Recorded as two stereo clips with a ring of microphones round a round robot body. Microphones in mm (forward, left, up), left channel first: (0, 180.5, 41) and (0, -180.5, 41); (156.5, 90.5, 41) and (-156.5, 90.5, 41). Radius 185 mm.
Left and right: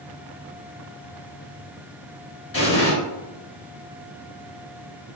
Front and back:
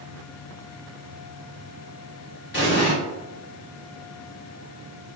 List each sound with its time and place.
2.5 s an explosion: 45° left, 1.8 m